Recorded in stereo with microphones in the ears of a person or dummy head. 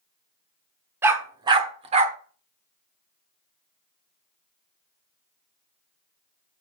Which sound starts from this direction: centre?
A dog barking, at 1.0 s.